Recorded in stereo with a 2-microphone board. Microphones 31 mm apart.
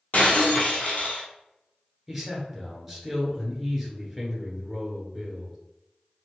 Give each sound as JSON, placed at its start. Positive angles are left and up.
{"t": 0.1, "sound": "breaking glass", "side_deg": 55, "distance_m": 1.1}
{"t": 2.1, "sound": "a man speaking", "side_deg": -5, "distance_m": 1.6}